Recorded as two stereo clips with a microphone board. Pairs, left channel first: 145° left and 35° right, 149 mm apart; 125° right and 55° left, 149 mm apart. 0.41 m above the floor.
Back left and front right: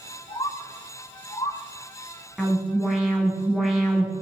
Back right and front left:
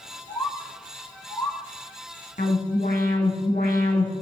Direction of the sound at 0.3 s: 175° left.